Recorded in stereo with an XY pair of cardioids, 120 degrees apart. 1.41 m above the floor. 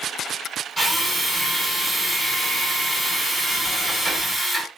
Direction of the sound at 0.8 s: 5° right.